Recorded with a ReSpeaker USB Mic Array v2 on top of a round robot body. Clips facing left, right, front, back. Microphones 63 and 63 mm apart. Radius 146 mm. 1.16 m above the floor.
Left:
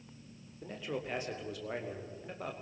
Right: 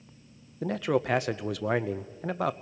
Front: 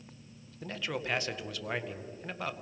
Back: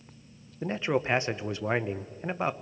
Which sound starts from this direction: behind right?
A man speaking, at 0.6 s.